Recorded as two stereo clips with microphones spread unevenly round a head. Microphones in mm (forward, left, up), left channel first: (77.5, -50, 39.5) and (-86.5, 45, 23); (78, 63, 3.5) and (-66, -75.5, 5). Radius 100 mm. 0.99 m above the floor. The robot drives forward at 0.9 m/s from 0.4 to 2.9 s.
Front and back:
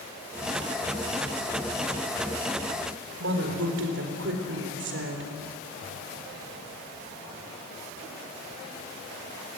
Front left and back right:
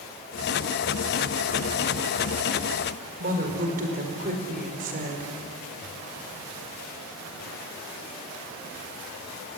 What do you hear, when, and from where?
3.2 s a woman speaking: 175° left, 4.5 m